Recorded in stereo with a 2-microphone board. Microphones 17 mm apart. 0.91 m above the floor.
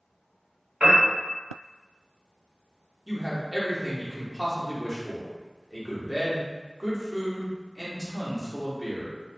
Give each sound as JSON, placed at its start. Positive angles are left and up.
{"t": 0.8, "sound": "a piano", "side_deg": -45, "distance_m": 1.1}
{"t": 3.1, "sound": "a man speaking", "side_deg": -20, "distance_m": 0.8}